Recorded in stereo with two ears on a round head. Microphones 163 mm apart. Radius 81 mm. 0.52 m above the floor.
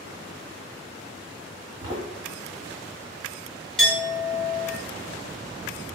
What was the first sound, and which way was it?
Footsteps, 25° right (ahead or behind).